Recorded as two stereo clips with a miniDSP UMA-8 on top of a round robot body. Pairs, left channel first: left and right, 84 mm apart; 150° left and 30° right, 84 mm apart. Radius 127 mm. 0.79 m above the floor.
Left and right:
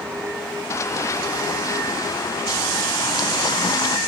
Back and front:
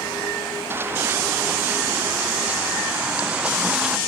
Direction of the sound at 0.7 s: 35° left.